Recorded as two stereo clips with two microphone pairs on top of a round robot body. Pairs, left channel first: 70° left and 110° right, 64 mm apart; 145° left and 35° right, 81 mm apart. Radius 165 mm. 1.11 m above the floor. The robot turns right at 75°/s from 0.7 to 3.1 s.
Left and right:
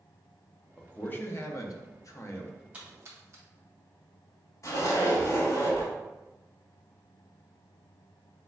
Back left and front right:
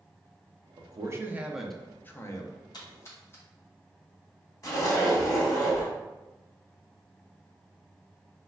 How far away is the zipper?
About 1.2 m.